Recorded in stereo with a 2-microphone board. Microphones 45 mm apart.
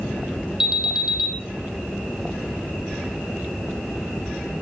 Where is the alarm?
10° right (ahead or behind), 1.8 m.